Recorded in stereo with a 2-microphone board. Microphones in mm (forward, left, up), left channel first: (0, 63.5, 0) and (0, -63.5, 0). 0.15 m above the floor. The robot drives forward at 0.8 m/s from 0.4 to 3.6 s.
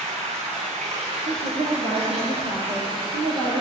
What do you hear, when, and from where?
0.0 s running water: 65° right (ahead or behind), 4.5 m; by 3.6 s 45° right (ahead or behind), 6 m
1.2 s a woman speaking: 70° right (ahead or behind), 3 m; by 3.6 s 60° right (ahead or behind), 3.5 m